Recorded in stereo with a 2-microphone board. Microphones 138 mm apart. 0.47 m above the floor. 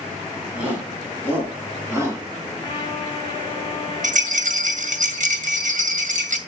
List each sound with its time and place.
0.6 s a shout: 10° right (ahead or behind), 5 m; by 2.2 s 25° right (ahead or behind), 4.5 m
2.6 s a trumpet: 25° left (ahead or behind), 3 m
4.0 s a rattle: 70° right (ahead or behind), 1.6 m